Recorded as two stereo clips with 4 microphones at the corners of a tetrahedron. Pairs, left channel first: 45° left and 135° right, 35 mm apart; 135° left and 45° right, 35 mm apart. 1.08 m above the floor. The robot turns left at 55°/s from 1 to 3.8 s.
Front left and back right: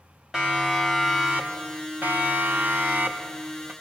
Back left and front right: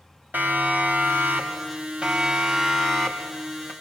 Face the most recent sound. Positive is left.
turn(degrees=175)